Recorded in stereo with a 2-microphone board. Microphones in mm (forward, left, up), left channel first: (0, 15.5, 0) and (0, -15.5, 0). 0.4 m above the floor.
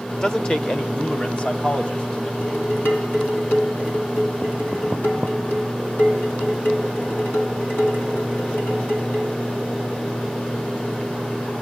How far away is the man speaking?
About 0.9 m.